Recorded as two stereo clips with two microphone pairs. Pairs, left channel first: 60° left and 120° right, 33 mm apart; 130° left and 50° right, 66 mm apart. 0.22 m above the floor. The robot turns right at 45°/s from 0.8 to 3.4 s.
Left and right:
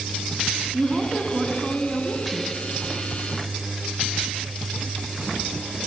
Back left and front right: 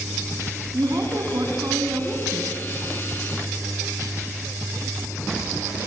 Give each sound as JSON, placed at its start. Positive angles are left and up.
{"t": 0.7, "sound": "a woman speaking", "azimuth_deg": -65, "distance_m": 2.0}